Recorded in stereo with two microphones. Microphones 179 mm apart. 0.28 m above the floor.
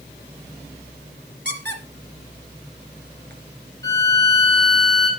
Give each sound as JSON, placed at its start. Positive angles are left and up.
{"t": 1.4, "sound": "a squeak", "side_deg": -75, "distance_m": 2.5}
{"t": 3.8, "sound": "a violin", "side_deg": -80, "distance_m": 10.0}